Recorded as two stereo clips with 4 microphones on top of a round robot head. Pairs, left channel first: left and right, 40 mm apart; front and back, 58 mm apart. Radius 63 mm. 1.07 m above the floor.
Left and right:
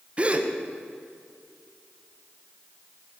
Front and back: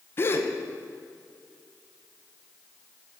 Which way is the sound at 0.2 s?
40° right.